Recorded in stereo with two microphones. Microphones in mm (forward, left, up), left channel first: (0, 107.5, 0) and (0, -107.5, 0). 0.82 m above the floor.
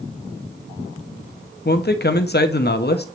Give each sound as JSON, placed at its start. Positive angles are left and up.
{"t": 1.6, "sound": "a man speaking", "side_deg": 50, "distance_m": 0.9}